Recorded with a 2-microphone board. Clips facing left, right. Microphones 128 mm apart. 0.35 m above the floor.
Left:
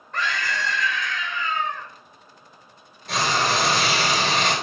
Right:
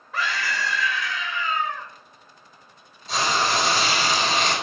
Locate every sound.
0.1 s a scream: 5° right (ahead or behind), 1.0 m
3.1 s frying: 75° left (ahead or behind), 1.4 m